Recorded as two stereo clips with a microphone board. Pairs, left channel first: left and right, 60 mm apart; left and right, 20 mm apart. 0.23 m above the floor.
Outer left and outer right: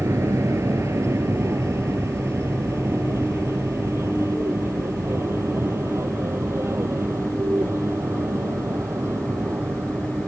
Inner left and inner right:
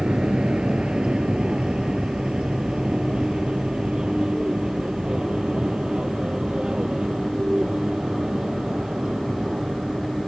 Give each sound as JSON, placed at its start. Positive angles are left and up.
{"t": 0.0, "sound": "an aircraft", "side_deg": -50}